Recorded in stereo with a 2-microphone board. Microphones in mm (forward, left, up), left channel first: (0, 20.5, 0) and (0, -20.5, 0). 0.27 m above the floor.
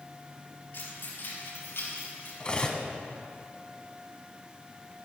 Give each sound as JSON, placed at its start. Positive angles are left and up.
{"t": 0.7, "sound": "keys jangling", "side_deg": 65, "distance_m": 4.5}
{"t": 2.4, "sound": "cutlery clinking", "side_deg": 25, "distance_m": 1.1}